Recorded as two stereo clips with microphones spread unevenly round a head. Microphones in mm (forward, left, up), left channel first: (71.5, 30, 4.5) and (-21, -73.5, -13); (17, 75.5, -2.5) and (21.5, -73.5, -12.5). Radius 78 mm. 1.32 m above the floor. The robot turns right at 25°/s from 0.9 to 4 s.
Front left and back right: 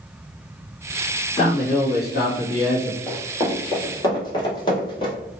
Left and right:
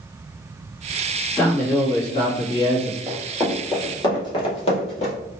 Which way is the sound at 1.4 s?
15° left.